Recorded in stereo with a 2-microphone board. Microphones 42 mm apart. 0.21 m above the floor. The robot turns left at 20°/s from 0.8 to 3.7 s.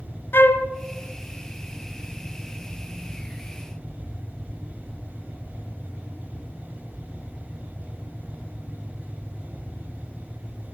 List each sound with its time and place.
0.3 s a flute: 65° left (ahead or behind), 0.9 m